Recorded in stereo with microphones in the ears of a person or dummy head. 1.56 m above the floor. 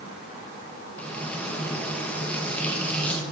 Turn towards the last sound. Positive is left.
turn(degrees=10)  # may be behind; listen again after turning